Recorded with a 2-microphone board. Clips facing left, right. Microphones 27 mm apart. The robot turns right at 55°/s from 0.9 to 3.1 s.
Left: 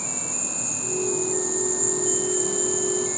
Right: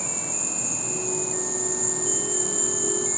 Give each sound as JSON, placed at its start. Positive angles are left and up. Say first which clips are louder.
{"t": 0.0, "sound": "an insect", "louder": "even", "azimuth_deg": -75, "distance_m": 1.9}